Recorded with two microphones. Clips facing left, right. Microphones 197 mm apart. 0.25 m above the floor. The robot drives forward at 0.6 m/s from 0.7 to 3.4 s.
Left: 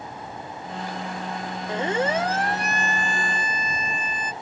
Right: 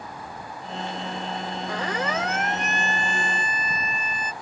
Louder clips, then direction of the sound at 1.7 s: Left 6 dB; 20° left (ahead or behind).